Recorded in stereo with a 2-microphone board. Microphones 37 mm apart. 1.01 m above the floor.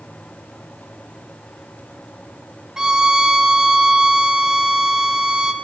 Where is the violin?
15° right (ahead or behind), 0.5 m.